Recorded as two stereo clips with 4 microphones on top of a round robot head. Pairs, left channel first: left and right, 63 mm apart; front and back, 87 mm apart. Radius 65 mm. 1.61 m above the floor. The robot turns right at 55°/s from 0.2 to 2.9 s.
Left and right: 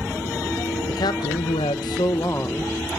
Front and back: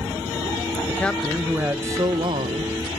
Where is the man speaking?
70° left, 1.4 m; by 3.0 s straight behind, 1.4 m.